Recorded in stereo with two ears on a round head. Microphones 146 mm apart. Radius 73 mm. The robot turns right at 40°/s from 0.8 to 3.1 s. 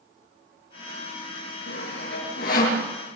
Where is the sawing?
80° left, 7.5 m; by 2.8 s 50° left (ahead or behind), 7.5 m.